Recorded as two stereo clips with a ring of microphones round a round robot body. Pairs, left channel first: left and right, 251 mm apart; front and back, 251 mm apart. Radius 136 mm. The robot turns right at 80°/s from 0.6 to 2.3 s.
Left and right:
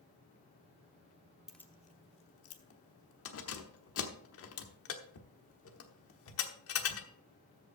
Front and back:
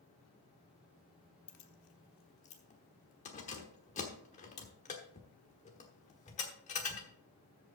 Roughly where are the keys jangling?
Ahead.